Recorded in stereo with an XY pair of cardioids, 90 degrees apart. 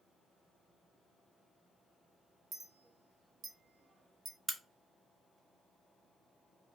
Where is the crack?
25° right, 0.9 m.